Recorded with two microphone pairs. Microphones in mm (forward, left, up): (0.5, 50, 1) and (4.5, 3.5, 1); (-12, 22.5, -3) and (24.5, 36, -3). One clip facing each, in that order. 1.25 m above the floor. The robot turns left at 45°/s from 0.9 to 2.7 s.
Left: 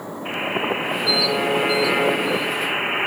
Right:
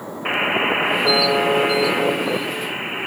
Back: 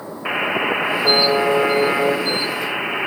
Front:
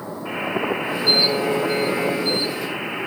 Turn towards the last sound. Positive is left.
turn(degrees=145)